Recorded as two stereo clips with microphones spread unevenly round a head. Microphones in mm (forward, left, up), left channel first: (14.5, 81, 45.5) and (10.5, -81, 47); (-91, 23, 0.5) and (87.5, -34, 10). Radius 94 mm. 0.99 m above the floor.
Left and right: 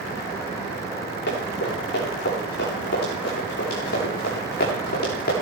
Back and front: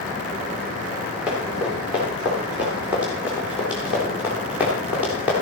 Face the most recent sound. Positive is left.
turn(degrees=65)